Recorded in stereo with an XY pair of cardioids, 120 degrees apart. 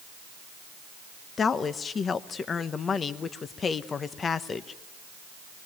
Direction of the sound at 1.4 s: 35° left.